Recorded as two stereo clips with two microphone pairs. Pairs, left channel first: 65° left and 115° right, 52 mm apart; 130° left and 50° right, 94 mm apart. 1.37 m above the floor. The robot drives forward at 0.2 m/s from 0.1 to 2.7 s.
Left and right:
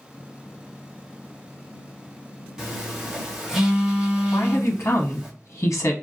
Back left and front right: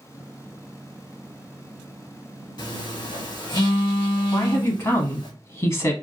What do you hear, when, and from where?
2.6 s a phone buzzing: 165° left, 1.0 m
4.3 s a woman speaking: 80° left, 0.7 m